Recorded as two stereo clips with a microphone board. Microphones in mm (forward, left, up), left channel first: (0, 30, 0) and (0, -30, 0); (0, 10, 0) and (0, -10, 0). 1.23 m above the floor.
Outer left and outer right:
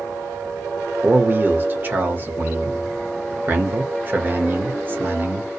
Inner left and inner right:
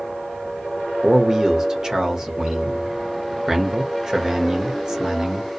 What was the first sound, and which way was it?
A man speaking, 35° right (ahead or behind).